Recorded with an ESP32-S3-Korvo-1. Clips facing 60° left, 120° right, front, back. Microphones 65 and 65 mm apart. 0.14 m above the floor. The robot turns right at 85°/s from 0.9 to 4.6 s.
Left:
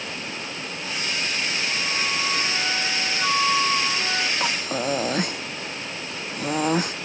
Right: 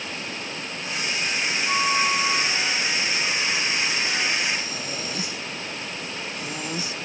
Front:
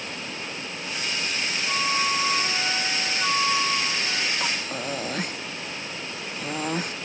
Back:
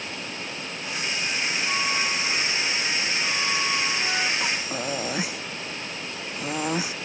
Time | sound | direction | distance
1.7 | a flute | 90° right | ?
4.4 | breathing | 80° left | ?